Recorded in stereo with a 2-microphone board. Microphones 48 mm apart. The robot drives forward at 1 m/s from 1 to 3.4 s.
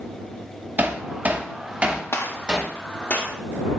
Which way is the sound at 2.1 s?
60° left (ahead or behind).